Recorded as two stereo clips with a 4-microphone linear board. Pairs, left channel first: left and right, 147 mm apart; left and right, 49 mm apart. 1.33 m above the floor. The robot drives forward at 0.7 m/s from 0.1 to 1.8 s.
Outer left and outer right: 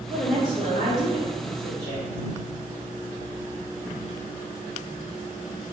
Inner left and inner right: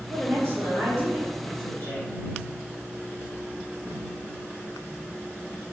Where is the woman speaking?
70° right (ahead or behind), 0.8 m; by 2.1 s 35° right (ahead or behind), 1.4 m.